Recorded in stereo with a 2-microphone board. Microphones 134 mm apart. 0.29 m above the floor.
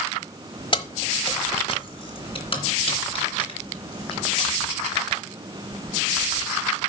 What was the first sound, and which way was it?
Keys jangling, 40° left (ahead or behind).